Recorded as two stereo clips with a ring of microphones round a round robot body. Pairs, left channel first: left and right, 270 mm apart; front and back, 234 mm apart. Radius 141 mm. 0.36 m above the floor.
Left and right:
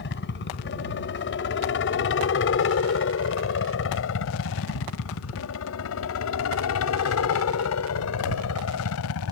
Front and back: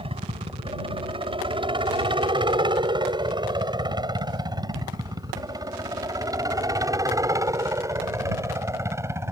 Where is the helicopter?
120° left; by 9.3 s 105° left.